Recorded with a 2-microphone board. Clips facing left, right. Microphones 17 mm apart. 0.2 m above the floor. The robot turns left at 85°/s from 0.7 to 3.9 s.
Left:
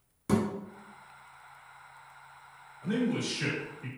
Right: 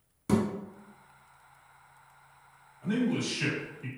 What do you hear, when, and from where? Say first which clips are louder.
0.3 s a thud: right 1 dB; 5° left (ahead or behind), 1.0 m
2.8 s a man speaking: right 1 dB; 20° right (ahead or behind), 1.1 m; by 3.9 s 10° right (ahead or behind), 1.1 m